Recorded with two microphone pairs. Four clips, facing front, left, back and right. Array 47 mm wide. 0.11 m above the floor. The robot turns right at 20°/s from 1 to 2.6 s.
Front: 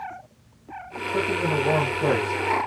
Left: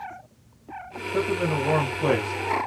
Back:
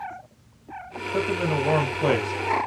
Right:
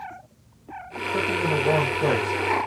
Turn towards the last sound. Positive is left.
turn(degrees=-155)